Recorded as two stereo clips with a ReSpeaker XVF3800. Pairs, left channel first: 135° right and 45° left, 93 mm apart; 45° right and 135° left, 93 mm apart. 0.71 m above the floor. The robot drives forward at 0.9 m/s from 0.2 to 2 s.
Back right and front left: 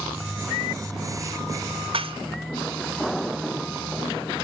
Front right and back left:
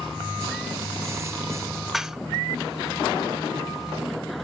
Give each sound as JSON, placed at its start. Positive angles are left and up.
{"t": 1.9, "sound": "dishes clattering", "azimuth_deg": 45, "distance_m": 0.5}